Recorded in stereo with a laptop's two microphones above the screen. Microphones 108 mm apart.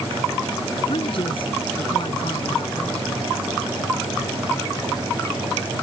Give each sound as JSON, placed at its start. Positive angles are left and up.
{"t": 0.9, "sound": "a man speaking", "side_deg": 55}